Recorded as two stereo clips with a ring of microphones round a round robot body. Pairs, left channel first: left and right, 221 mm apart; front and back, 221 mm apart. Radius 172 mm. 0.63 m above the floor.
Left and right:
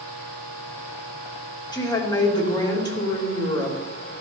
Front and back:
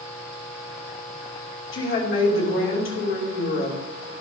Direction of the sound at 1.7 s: 20° left.